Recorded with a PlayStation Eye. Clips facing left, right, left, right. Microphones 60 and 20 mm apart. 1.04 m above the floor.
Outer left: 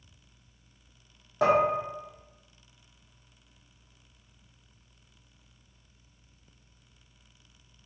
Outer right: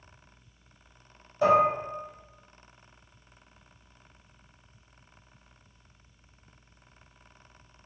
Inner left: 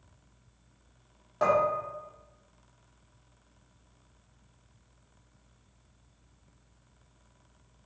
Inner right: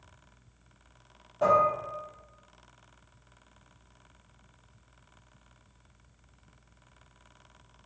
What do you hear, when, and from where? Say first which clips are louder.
1.4 s dishes clattering: outer right 2 dB, inner right 2 dB; 80° left, 1.3 m